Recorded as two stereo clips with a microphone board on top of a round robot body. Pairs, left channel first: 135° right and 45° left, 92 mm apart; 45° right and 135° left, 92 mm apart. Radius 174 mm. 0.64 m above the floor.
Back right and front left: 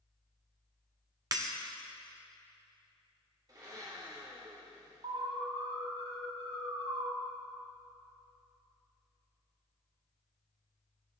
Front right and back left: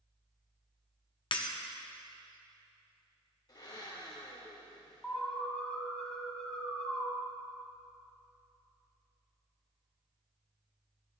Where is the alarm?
40° left, 4.5 m.